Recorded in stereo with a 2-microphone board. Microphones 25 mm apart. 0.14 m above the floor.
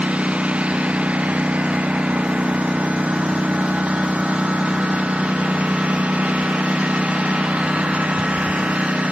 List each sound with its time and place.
0.0 s a lawn mower: 60° right (ahead or behind)